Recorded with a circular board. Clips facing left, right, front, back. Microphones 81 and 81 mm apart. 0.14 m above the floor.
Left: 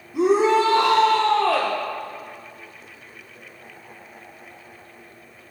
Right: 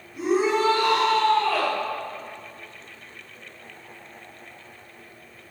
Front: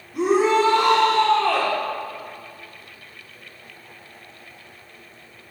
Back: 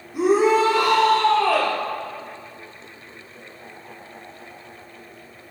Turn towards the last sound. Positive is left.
turn(degrees=95)